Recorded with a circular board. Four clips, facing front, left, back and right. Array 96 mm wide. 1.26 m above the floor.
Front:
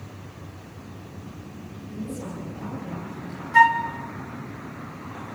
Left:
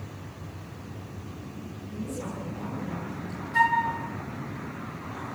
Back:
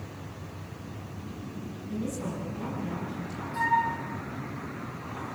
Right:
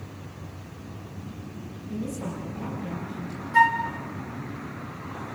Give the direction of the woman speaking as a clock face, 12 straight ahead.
4 o'clock.